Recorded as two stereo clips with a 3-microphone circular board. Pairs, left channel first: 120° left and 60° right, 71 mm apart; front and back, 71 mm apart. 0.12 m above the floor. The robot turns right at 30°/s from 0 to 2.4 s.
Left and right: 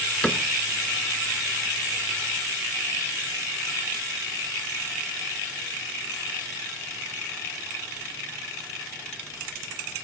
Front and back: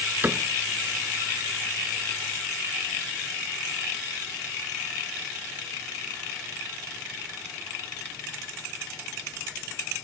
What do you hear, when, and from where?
0.2 s a cupboard door: straight behind, 0.6 m; by 0.4 s 175° right, 0.6 m